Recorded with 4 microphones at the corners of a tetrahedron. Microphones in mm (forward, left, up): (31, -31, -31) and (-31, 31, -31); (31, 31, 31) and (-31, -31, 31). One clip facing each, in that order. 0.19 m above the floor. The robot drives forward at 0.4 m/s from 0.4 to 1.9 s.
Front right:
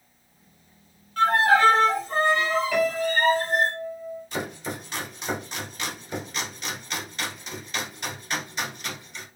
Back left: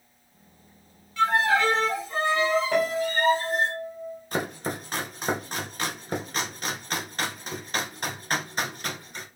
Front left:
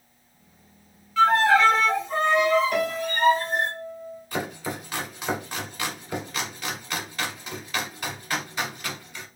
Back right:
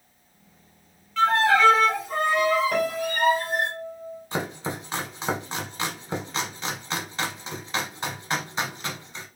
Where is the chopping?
165° left, 0.9 m.